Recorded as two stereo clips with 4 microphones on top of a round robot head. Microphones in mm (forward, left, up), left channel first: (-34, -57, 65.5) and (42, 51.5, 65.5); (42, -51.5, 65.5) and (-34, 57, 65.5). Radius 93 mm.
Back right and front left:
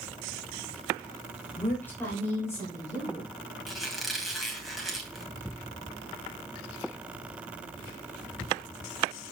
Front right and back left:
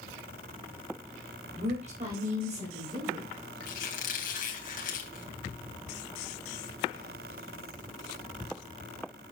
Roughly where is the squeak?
Ahead right.